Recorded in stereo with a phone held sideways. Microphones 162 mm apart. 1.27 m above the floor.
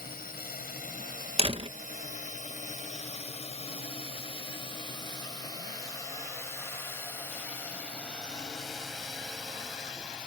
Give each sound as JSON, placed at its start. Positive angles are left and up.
{"t": 0.0, "sound": "a drone", "side_deg": 65}
{"t": 1.4, "sound": "a door slam", "side_deg": -35}